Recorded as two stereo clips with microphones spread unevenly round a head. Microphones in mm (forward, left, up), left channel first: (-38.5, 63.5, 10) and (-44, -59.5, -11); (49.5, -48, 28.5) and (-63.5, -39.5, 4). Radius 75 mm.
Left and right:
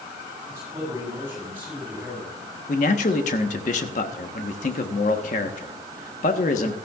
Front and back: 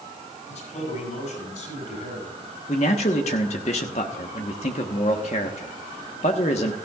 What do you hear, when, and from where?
0.5 s a man speaking: 20° right, 6.5 m; by 2.3 s 15° right, 8.5 m
2.7 s a man speaking: 45° left, 1.2 m